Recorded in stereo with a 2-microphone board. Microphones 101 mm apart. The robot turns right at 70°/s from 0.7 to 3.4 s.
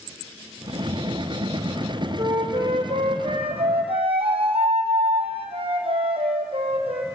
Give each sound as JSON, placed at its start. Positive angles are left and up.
{"t": 2.2, "sound": "a flute", "azimuth_deg": -145, "distance_m": 3.0}